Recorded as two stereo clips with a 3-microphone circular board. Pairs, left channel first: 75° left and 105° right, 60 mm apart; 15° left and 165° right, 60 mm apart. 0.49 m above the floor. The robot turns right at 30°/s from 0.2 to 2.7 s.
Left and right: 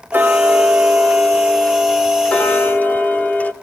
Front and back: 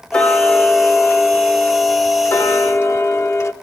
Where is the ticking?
55° right, 1.1 m; by 3.5 s 20° left, 1.1 m.